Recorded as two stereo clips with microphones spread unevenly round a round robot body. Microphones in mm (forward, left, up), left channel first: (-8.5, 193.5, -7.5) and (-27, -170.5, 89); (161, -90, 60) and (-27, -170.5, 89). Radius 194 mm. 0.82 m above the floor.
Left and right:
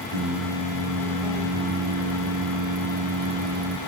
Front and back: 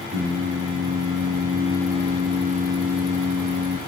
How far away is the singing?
About 3 m.